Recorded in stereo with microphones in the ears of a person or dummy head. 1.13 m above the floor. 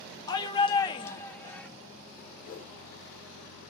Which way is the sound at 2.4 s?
70° left (ahead or behind).